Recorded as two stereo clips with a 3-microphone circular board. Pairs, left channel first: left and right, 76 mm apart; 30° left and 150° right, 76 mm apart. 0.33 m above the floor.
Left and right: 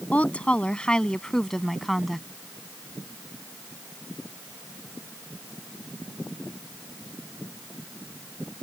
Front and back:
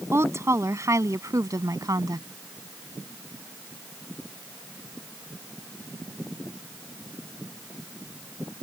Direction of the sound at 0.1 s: 160° left.